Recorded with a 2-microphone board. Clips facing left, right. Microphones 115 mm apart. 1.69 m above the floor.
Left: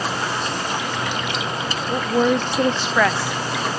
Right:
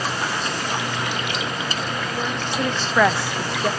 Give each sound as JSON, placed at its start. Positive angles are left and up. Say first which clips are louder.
{"t": 1.9, "sound": "a woman speaking", "louder": "left 8 dB", "side_deg": 75}